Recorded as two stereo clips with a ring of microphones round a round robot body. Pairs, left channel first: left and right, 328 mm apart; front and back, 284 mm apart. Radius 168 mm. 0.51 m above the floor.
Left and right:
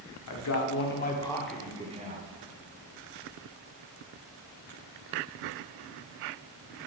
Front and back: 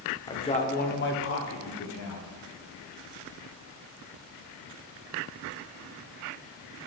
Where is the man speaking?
70° left, 1.3 m; by 2.3 s 30° right, 1.5 m.